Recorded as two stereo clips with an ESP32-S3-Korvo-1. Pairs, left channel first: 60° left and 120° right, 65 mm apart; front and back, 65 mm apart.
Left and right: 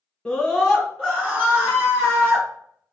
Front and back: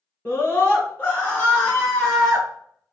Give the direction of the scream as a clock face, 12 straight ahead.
1 o'clock.